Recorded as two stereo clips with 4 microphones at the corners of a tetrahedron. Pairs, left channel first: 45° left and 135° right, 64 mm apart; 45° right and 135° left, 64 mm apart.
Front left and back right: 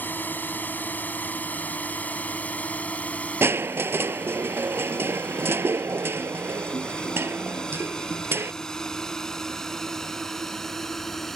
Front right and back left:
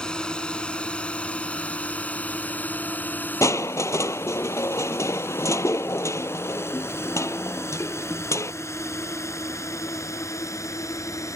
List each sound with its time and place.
0.0 s a drone: 20° left; by 11.4 s 40° right
3.4 s crushing: 85° right